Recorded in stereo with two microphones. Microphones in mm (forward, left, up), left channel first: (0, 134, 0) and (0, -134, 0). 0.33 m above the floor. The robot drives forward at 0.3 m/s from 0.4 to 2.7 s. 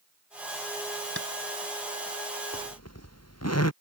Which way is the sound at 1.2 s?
55° left (ahead or behind).